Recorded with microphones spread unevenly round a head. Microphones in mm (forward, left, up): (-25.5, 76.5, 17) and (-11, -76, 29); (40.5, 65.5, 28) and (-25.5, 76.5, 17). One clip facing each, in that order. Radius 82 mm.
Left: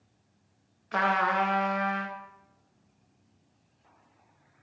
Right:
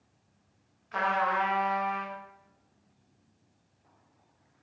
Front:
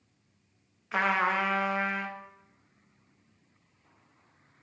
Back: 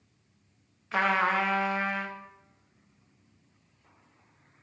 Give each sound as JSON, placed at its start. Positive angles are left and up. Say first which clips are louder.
{"t": 0.9, "sound": "a trumpet", "louder": "left 2 dB, back 1 dB", "azimuth_deg": 70, "distance_m": 0.5}